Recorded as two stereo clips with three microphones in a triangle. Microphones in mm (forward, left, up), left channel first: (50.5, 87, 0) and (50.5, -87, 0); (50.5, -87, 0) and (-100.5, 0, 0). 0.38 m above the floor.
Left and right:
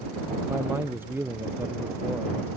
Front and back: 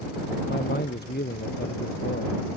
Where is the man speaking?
15° right.